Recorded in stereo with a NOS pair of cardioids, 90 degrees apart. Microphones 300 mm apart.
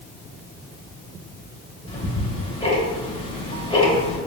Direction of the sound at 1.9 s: 20° left.